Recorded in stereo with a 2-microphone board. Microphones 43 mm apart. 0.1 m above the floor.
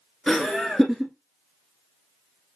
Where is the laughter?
10° left (ahead or behind), 1.1 m.